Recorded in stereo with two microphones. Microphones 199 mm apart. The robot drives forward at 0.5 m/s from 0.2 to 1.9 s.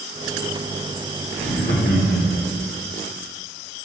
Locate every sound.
1.4 s laughter: 75° left (ahead or behind), 3 m